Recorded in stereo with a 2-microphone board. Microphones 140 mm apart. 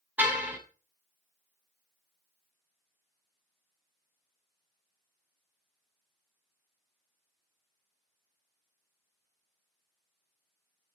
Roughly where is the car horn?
Centre.